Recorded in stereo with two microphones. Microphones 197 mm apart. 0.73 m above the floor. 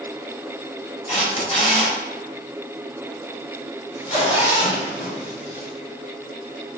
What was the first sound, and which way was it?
A camera shutter, 35° left (ahead or behind).